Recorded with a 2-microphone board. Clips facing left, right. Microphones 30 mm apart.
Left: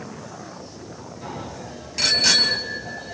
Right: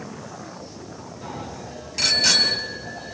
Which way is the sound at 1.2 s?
Centre (ahead or behind).